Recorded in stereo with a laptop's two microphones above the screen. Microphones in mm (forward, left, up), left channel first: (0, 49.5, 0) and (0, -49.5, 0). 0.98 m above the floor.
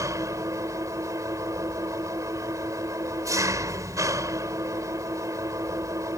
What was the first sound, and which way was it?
An engine running, 35° right (ahead or behind).